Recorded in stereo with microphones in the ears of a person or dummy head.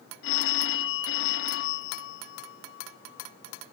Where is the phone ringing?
75° left (ahead or behind), 1.2 m.